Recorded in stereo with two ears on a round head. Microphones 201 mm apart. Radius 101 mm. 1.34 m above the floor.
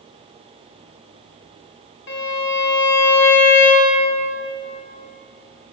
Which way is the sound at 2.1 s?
50° left (ahead or behind).